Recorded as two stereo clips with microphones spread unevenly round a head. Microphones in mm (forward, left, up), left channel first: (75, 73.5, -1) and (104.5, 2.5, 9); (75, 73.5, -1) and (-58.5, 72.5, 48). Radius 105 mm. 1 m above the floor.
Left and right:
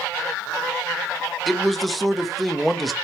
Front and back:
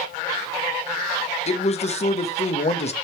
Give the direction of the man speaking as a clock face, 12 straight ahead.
11 o'clock.